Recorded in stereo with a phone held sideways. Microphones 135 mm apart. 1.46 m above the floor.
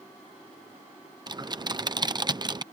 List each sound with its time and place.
1.3 s typing on a keyboard: 30° right (ahead or behind)